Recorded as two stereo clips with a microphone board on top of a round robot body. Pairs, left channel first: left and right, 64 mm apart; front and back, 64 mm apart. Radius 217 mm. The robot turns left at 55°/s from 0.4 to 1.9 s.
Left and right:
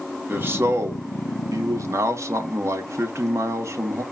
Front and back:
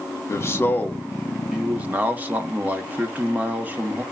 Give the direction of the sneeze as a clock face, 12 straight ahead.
No sneeze in this recording.